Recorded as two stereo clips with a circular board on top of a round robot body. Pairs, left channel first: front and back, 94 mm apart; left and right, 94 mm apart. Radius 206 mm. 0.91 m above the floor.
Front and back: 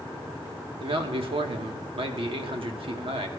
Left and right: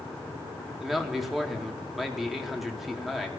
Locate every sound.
0.8 s a man speaking: 175° right, 1.6 m